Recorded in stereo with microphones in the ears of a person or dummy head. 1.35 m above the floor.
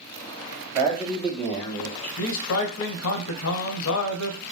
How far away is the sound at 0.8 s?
About 2.5 m.